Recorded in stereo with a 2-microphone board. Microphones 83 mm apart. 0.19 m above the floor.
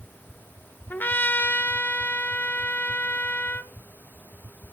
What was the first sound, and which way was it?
A trumpet, 20° left (ahead or behind).